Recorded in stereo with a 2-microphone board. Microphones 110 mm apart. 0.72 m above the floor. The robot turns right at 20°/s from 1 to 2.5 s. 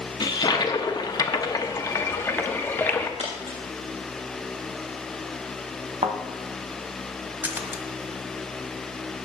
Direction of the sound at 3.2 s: 85° right.